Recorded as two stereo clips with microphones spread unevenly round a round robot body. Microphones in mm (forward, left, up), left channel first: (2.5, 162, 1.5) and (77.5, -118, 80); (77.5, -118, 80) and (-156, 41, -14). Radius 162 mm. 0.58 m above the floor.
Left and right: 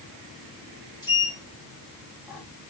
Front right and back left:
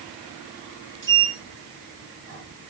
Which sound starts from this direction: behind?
A sliding door, at 1.0 s.